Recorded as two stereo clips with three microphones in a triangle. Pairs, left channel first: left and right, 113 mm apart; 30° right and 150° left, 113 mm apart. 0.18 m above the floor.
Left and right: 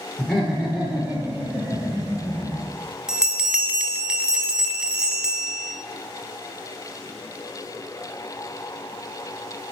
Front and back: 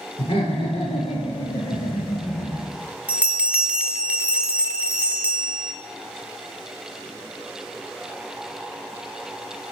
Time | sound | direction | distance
0.2 | laughter | 5° left | 2.5 m
3.1 | a bell | 160° right | 0.8 m